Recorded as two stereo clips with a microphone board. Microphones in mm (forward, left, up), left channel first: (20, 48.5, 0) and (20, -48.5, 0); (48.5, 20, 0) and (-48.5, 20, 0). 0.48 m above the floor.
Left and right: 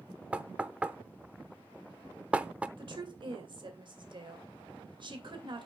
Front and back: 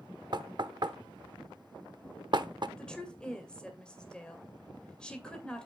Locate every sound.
0.3 s knocking: 165° right, 0.6 m
2.8 s a woman speaking: 80° right, 2.5 m